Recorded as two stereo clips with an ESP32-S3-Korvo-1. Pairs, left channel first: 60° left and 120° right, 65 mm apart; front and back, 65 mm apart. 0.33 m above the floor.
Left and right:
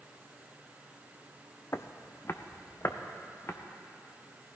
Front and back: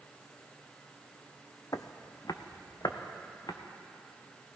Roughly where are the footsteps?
Ahead.